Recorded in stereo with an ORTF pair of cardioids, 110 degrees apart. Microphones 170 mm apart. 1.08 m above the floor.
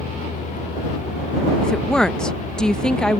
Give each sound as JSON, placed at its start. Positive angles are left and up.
{"t": 0.0, "sound": "a vehicle", "azimuth_deg": 45}
{"t": 1.6, "sound": "a woman speaking", "azimuth_deg": 5}